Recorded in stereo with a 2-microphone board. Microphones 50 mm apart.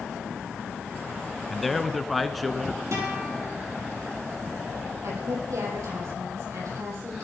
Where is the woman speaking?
75° right (ahead or behind), 6.5 m.